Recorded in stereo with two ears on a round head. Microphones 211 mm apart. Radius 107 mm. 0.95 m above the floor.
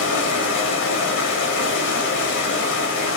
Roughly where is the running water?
Left.